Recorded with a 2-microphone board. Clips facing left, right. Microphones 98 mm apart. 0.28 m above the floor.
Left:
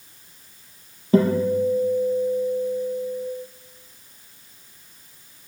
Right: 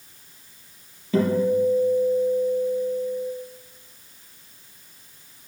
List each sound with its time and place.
1.1 s a guitar: 35° left (ahead or behind), 4.5 m